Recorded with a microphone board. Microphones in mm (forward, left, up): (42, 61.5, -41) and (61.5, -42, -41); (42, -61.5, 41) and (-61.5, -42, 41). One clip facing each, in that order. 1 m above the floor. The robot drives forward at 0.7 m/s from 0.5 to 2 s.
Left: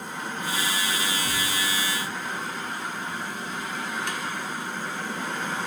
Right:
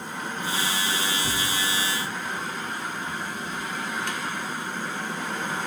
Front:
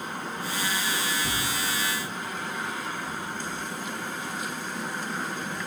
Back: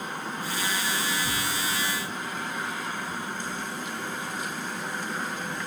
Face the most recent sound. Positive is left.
turn(degrees=-75)